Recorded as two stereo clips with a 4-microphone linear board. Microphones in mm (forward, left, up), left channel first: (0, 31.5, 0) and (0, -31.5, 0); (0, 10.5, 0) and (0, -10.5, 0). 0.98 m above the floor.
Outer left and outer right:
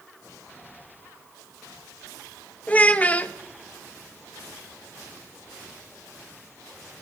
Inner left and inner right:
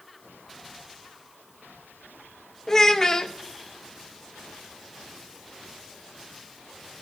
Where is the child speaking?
25° left (ahead or behind), 0.8 m.